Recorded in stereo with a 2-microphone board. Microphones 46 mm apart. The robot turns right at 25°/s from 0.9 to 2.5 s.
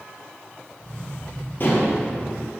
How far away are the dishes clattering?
About 3 m.